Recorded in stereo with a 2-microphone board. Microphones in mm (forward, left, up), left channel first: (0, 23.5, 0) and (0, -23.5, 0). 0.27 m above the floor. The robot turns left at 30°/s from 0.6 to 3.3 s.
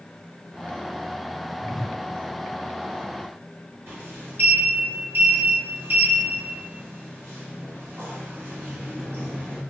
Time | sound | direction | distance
1.6 | a whoosh | 5° right (ahead or behind) | 0.7 m
3.9 | a sliding door | 50° right (ahead or behind) | 1.5 m